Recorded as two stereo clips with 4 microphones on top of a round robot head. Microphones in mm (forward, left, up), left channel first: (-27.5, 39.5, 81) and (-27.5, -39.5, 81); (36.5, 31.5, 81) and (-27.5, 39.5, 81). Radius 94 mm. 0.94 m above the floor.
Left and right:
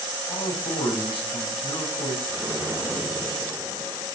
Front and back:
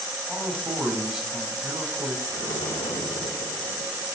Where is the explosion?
15° right, 4.5 m.